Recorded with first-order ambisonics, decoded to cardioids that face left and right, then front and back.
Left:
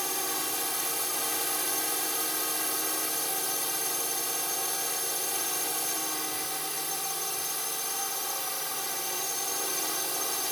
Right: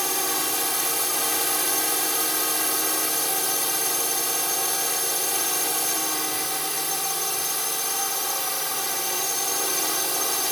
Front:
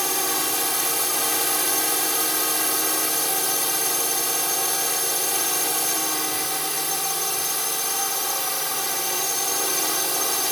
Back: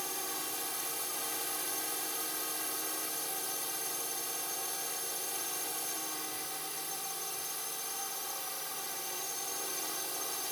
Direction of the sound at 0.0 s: 25° right.